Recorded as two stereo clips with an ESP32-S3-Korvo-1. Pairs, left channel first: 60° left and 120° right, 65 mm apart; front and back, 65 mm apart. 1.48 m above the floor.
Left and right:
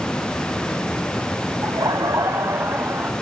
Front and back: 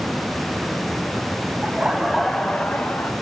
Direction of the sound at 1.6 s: 110° right.